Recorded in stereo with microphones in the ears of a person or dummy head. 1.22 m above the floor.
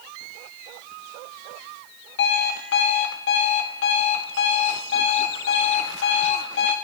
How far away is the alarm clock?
About 1.1 m.